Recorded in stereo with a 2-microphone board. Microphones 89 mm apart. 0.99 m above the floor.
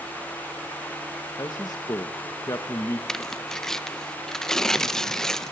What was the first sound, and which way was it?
A man speaking, 45° left (ahead or behind).